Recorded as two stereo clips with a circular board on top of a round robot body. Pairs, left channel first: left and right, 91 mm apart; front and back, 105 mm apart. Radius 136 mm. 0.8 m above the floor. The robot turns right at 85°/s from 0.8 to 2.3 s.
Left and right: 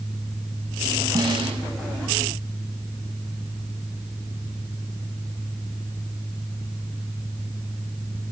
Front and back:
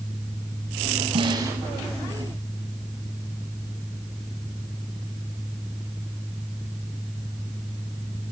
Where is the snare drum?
145° right, 4.5 m; by 1.6 s 110° right, 4.5 m.